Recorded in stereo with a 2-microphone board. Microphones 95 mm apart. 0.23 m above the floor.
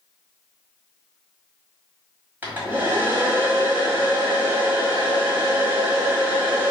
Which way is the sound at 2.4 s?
20° right (ahead or behind).